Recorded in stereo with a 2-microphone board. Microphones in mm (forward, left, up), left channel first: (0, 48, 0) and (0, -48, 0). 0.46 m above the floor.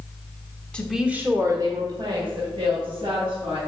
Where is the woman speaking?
10° left (ahead or behind), 1.0 m; by 3.6 s 75° right (ahead or behind), 3.5 m.